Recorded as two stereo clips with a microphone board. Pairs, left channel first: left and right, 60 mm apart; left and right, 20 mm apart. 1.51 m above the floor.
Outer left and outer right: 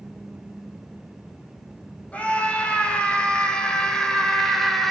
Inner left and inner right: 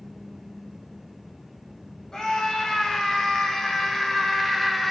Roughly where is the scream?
Left.